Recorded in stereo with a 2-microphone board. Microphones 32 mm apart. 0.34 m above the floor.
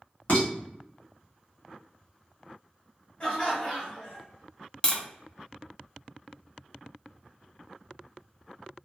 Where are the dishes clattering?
55° left (ahead or behind), 1.6 m.